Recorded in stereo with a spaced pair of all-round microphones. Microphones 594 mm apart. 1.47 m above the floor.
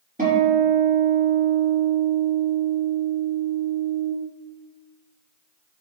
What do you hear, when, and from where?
0.2 s a guitar: 15° right (ahead or behind), 5 m